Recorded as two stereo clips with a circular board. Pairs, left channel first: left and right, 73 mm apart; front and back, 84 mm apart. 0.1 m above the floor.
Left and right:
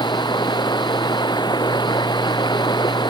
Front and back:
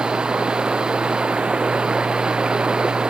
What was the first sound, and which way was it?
Running water, 100° left.